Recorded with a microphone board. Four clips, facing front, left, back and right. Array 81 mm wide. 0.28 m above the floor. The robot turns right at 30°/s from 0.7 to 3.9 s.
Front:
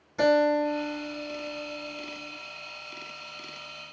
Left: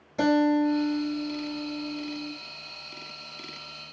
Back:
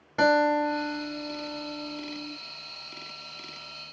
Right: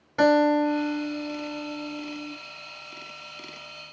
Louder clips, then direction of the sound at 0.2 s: Right 3 dB, even; 140° right.